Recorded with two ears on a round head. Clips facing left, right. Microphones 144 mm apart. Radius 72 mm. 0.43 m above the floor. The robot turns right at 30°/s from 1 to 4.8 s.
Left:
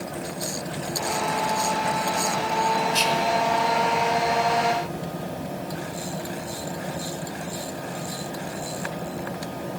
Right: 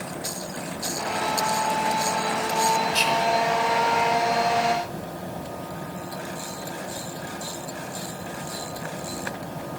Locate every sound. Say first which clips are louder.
2.9 s whispering: even; centre (ahead or behind), 1.2 m; by 3.3 s 10° left (ahead or behind), 1.2 m